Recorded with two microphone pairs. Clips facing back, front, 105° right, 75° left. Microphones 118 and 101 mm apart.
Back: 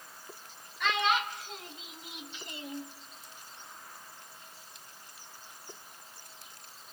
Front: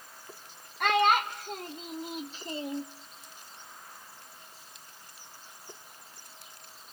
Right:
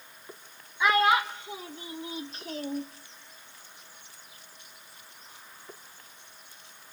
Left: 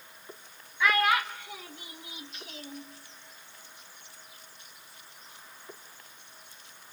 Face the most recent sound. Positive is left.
turn(degrees=-65)